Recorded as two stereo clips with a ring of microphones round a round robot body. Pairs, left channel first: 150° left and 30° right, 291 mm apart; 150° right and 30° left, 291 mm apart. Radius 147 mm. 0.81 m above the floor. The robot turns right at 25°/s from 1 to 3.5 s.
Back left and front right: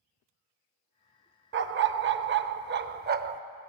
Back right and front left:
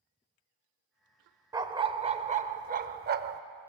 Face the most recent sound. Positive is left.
turn(degrees=10)